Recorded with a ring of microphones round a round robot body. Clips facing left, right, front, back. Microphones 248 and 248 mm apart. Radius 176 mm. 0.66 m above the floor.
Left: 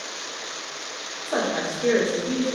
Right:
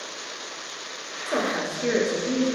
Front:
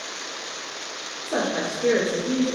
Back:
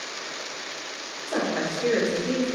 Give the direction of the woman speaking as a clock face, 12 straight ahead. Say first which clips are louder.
Left 1 dB, front 1 dB; 2 o'clock.